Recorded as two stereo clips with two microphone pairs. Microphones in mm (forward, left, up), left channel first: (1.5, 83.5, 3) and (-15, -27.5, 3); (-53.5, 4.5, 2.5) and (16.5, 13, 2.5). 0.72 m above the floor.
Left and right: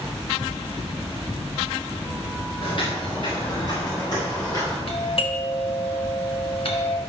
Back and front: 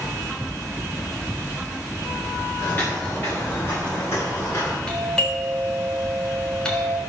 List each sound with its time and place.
2.6 s footsteps: 120° left, 7 m; by 4.8 s 140° left, 9 m
4.9 s a doorbell: 110° left, 3 m